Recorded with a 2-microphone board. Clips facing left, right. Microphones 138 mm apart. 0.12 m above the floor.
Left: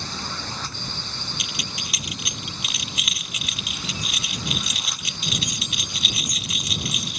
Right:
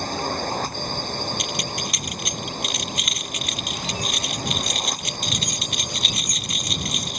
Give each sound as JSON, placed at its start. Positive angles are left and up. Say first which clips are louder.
{"t": 0.0, "sound": "a drone", "louder": "right 8 dB", "side_deg": -50}
{"t": 1.4, "sound": "keys jangling", "louder": "right 7 dB", "side_deg": 5}